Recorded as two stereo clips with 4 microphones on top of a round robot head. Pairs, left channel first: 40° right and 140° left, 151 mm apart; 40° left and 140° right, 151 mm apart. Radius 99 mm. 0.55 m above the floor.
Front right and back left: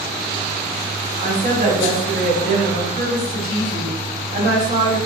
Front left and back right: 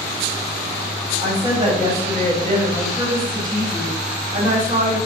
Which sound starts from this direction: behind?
A woman speaking, at 1.2 s.